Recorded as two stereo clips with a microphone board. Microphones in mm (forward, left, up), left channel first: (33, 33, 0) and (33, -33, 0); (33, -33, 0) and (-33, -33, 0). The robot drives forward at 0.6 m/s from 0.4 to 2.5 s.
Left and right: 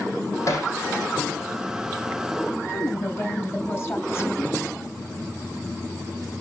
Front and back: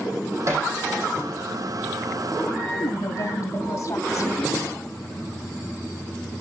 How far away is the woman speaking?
About 3 m.